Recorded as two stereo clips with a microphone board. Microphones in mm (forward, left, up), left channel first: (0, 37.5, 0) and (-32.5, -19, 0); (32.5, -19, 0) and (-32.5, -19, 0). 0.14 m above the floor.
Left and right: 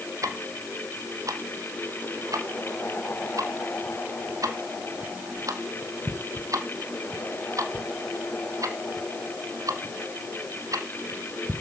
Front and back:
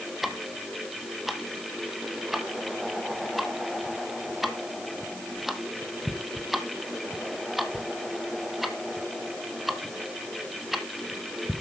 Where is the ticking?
95° right, 1.3 m.